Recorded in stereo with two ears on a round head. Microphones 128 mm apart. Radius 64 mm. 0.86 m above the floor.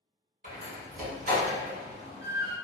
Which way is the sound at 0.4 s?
60° right (ahead or behind).